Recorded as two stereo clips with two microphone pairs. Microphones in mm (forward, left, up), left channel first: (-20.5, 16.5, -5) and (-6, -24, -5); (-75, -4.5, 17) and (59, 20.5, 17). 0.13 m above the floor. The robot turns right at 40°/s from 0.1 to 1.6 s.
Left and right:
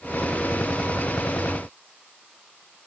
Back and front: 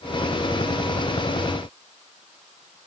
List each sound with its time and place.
Only background noise.